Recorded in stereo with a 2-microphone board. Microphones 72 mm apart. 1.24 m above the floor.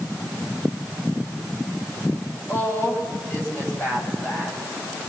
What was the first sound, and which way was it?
A woman speaking, 35° left (ahead or behind).